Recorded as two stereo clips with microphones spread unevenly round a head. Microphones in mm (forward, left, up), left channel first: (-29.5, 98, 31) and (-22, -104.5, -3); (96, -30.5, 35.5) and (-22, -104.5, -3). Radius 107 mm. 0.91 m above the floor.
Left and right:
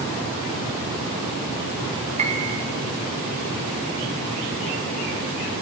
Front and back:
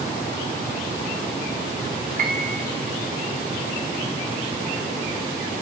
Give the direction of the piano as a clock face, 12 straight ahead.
5 o'clock.